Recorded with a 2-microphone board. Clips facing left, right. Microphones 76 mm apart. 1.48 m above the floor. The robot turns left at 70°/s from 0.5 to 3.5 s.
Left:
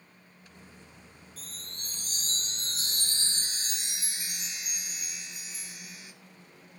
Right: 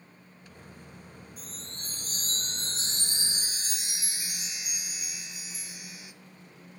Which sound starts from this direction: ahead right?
A chime, at 1.4 s.